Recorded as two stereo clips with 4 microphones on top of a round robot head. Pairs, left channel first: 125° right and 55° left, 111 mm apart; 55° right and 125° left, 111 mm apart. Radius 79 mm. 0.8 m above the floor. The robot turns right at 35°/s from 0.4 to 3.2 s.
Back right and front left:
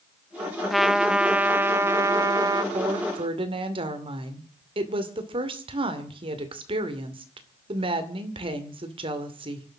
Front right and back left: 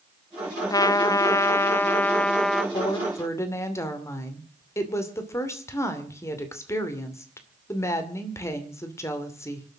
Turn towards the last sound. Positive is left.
turn(degrees=10)